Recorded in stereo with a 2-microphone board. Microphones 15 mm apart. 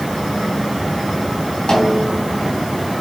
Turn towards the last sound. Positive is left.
turn(degrees=65)  # may be behind; listen again after turning